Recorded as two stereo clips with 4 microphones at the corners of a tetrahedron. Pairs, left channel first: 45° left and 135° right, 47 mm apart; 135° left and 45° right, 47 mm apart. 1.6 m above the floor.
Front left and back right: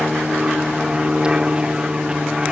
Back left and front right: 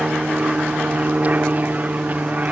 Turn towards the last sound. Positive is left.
turn(degrees=-75)